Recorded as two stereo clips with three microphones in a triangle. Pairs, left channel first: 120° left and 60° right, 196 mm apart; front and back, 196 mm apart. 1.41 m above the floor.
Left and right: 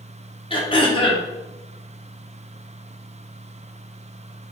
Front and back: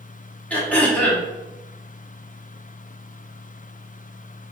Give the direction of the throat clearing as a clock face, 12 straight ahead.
9 o'clock.